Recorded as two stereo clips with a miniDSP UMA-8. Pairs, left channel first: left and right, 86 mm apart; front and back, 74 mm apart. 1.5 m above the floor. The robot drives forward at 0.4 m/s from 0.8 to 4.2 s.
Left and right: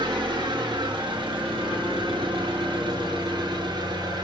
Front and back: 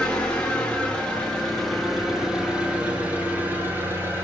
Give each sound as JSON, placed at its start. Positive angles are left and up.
{"t": 0.0, "sound": "an engine running", "azimuth_deg": -75, "distance_m": 1.6}